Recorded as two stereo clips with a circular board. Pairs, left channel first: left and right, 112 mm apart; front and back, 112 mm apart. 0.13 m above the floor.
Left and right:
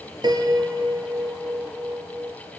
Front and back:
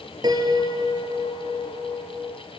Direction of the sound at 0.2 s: 135° right.